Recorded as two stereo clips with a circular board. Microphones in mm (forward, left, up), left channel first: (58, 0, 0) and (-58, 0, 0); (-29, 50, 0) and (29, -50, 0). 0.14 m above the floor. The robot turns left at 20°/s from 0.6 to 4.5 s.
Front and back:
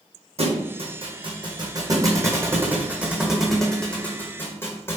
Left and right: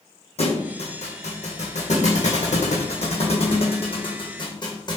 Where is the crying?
I don't hear crying.